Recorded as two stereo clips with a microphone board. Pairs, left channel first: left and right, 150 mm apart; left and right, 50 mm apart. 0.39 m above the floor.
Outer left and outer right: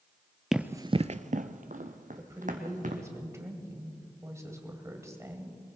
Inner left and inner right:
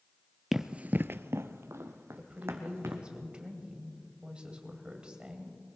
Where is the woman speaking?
20° right (ahead or behind), 2 m.